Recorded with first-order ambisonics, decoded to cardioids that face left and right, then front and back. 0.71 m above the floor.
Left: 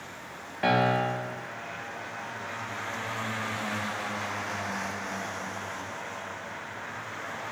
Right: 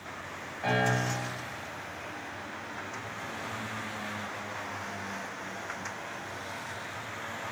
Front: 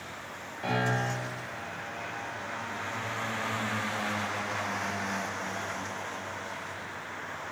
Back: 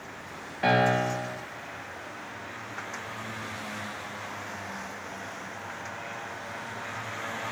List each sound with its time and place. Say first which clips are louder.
0.6 s a piano: left 4 dB, back 6 dB; 125° left, 2 m